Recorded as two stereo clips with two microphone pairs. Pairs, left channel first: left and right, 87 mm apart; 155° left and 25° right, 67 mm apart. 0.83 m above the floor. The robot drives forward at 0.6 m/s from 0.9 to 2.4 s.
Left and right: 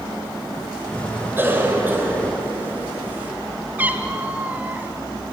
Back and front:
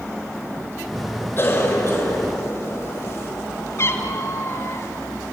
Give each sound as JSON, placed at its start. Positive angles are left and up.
{"t": 1.4, "sound": "a cough", "azimuth_deg": -155, "distance_m": 4.5}
{"t": 3.8, "sound": "a cat meowing", "azimuth_deg": -160, "distance_m": 2.0}